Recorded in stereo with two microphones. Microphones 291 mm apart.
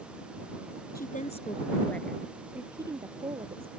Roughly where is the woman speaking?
Left.